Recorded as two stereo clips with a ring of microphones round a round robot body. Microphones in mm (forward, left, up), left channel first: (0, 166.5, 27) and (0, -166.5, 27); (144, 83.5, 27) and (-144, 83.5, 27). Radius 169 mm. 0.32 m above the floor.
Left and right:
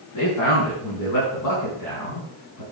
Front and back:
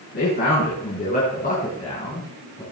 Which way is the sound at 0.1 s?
55° left.